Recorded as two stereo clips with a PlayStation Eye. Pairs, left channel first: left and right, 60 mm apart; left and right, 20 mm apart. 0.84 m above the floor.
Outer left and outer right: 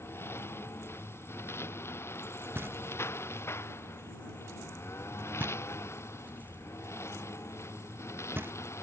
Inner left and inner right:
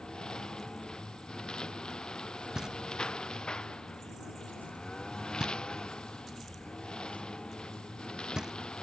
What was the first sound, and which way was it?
A lawn mower, 45° left (ahead or behind).